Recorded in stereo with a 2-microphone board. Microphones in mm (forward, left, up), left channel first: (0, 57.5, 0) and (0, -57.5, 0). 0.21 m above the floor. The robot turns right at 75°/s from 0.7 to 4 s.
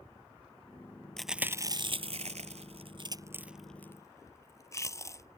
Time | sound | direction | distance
1.2 | chewing | 5° left (ahead or behind) | ?